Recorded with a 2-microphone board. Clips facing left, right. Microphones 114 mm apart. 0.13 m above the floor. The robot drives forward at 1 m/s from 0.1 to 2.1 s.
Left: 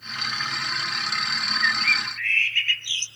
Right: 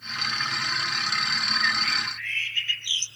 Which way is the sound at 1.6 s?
20° right (ahead or behind).